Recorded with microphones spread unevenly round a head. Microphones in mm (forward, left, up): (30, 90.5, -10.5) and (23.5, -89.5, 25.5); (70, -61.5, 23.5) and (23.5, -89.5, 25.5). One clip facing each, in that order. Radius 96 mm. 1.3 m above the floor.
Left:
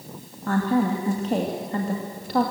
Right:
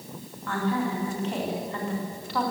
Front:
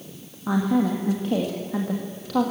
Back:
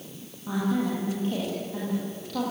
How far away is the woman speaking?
About 2 m.